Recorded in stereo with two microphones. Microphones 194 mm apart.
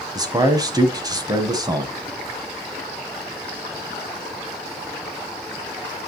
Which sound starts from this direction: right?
A man speaking, at 0.1 s.